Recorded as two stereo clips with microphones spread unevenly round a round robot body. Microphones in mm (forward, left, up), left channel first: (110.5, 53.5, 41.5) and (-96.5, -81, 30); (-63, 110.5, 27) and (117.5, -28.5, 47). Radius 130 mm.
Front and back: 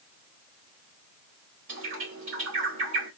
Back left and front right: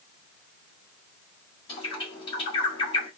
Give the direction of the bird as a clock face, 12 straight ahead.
5 o'clock.